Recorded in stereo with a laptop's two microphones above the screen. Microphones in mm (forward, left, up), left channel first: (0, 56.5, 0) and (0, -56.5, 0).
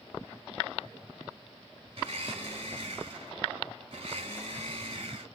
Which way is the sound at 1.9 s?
50° right (ahead or behind).